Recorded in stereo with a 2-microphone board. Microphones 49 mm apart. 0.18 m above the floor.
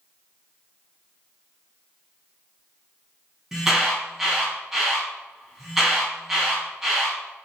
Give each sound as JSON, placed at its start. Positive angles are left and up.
{"t": 3.5, "sound": "an alarm", "side_deg": -10, "distance_m": 1.0}